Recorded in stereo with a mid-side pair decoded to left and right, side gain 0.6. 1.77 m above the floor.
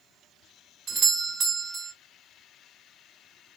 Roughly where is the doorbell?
Ahead right.